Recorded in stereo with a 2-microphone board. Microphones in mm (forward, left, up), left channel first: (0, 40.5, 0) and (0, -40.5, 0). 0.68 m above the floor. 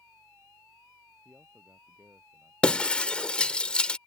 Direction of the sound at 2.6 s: 15° left (ahead or behind).